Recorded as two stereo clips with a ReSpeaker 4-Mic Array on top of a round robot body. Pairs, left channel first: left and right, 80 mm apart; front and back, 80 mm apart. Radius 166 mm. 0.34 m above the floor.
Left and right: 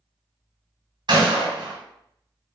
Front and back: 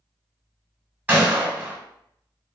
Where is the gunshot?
110° right, 1.2 m.